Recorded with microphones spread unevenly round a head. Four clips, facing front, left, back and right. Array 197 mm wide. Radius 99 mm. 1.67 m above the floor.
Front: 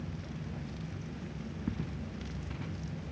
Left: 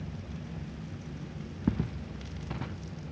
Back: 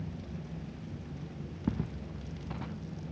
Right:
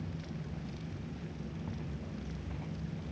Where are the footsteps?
100° left.